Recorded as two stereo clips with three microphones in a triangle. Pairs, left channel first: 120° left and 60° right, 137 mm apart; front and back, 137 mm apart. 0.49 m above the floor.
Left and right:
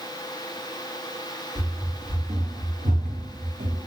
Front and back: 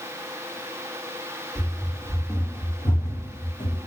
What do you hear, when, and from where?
1.6 s running footsteps: 95° right, 1.7 m; by 3.9 s 45° right, 1.3 m